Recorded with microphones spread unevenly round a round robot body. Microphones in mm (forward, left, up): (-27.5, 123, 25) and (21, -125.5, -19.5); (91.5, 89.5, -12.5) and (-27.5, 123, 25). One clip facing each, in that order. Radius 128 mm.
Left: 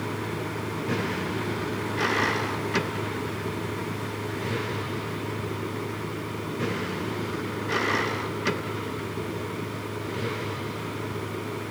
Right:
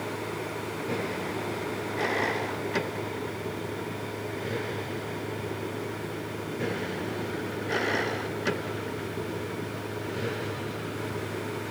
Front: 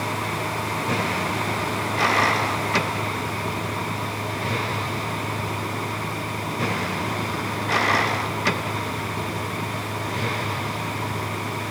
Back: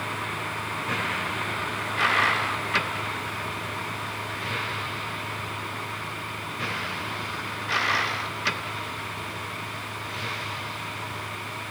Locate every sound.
0.0 s a vehicle: 40° left; by 11.7 s 20° left